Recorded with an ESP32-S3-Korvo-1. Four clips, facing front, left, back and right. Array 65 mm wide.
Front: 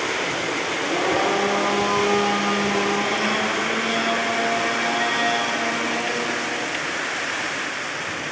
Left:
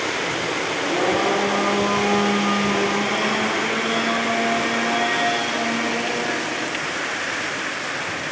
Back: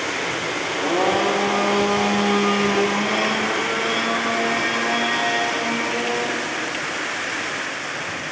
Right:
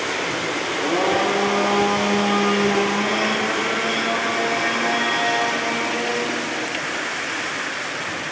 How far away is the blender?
About 3.5 m.